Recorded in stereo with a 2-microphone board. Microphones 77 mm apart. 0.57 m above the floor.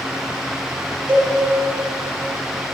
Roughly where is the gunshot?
I don't hear a gunshot.